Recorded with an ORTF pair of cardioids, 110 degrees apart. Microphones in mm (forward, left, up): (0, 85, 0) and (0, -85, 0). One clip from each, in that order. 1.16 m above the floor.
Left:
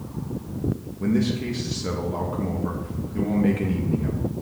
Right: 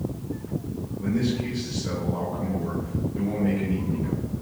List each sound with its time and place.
1.0 s a man speaking: 50° left, 1.7 m